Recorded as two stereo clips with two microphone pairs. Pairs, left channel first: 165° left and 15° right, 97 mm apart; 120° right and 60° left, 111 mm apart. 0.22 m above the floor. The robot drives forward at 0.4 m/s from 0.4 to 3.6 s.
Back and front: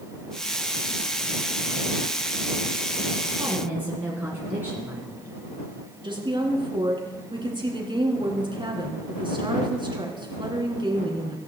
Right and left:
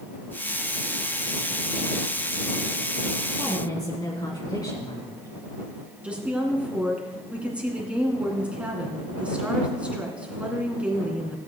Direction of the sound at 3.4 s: 75° right.